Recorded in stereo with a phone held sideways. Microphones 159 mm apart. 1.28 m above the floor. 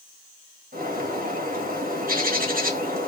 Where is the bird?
65° right (ahead or behind), 1.4 m.